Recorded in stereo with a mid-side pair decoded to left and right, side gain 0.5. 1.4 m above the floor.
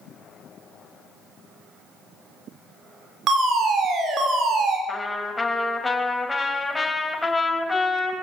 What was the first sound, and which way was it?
A fire alarm, 55° right.